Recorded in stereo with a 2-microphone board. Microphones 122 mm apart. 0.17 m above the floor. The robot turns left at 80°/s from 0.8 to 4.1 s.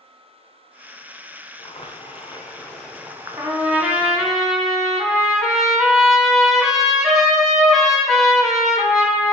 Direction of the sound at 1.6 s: 100° left.